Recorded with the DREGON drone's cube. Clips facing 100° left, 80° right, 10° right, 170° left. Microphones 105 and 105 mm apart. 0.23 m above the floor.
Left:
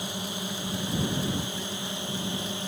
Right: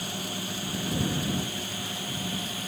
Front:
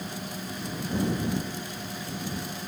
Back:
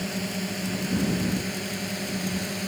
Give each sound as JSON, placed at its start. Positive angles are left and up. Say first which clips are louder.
{"t": 0.0, "sound": "a drone", "louder": "left 1 dB, back 6 dB", "azimuth_deg": 170}